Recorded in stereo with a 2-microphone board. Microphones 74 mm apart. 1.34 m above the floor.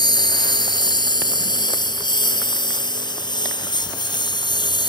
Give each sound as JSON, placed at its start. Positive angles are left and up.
{"t": 0.0, "sound": "a lawn mower", "side_deg": 70}